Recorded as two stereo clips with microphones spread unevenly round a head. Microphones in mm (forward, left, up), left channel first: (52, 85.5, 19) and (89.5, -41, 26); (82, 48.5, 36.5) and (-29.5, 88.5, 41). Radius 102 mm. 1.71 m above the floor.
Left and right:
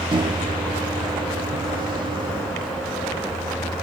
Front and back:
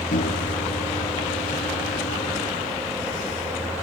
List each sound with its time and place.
0.1 s a microwave: 25° right